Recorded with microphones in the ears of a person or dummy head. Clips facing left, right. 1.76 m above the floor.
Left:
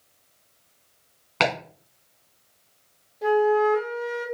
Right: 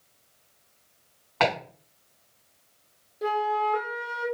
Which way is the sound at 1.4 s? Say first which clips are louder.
Even; 25° left (ahead or behind).